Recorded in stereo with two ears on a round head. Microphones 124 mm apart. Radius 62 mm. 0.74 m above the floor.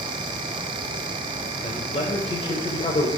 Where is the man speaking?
40° left (ahead or behind), 3 m.